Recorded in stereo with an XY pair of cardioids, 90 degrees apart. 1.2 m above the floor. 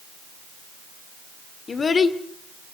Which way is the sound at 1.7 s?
45° left.